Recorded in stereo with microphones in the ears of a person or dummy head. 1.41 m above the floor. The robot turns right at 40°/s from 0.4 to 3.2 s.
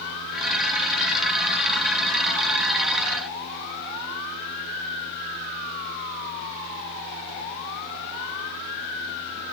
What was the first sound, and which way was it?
Only background noise.